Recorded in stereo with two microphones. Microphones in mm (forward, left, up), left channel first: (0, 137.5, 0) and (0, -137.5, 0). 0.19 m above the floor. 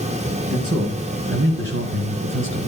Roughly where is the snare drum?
No snare drum in this recording.